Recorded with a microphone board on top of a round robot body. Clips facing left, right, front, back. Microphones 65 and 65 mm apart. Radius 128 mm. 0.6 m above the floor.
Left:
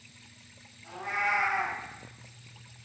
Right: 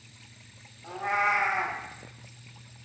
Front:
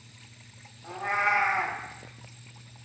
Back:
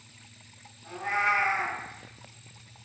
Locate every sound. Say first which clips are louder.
0.8 s a cat meowing: right 4 dB, even; 55° right, 0.5 m